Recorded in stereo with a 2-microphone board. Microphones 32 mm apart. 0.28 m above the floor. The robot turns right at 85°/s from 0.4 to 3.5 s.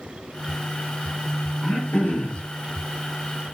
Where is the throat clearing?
35° left, 2.5 m; by 2.4 s 105° left, 2.5 m.